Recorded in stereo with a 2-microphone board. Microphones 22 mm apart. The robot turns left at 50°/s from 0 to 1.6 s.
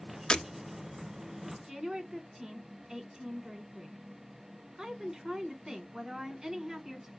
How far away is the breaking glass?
About 0.6 m.